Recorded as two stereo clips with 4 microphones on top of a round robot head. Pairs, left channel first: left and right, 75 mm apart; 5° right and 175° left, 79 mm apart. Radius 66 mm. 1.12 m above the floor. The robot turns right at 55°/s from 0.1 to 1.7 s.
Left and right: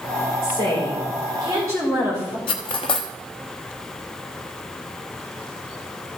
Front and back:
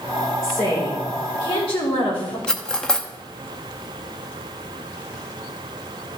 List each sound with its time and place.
0.4 s a woman speaking: 100° right, 4 m; by 2.4 s 30° right, 4 m
2.5 s cutlery clinking: 75° left, 0.7 m